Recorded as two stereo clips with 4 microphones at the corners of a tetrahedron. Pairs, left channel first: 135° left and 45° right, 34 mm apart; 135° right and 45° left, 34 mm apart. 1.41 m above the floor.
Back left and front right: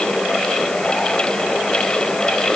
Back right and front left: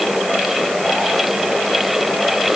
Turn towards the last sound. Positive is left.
No sound to turn to.